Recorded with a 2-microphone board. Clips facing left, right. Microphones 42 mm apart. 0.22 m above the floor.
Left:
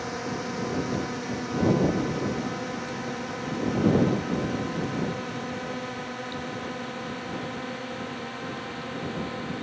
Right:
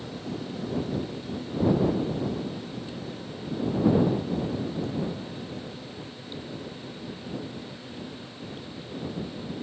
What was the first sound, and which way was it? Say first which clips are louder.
A drone: left 4 dB; 80° left.